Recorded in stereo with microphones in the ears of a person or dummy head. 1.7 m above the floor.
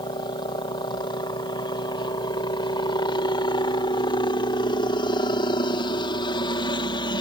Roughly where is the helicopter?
Left.